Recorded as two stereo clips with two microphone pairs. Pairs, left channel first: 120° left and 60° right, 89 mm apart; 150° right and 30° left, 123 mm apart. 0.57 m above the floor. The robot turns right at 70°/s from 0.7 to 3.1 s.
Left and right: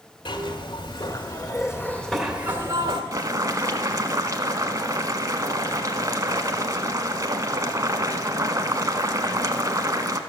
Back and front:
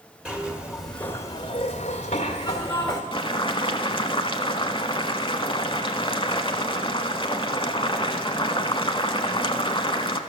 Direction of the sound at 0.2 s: 110° left.